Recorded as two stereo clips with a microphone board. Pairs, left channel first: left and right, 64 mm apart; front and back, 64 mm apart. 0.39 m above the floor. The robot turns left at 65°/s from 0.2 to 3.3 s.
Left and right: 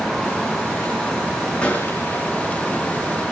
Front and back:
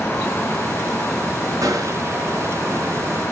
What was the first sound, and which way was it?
A gunshot, 165° left.